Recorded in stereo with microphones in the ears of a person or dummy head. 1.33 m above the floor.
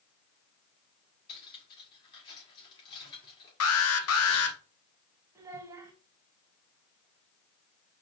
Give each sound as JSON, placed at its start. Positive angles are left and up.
{"t": 1.3, "sound": "cutlery clinking", "side_deg": 25, "distance_m": 2.0}
{"t": 3.6, "sound": "an alarm", "side_deg": 70, "distance_m": 0.7}
{"t": 5.3, "sound": "a child speaking", "side_deg": -15, "distance_m": 1.2}